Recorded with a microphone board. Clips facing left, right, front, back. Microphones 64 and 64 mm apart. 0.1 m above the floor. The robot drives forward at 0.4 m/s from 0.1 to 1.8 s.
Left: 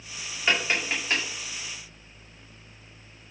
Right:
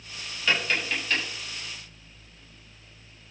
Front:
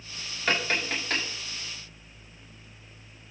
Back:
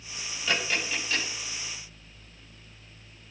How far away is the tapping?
About 7.5 m.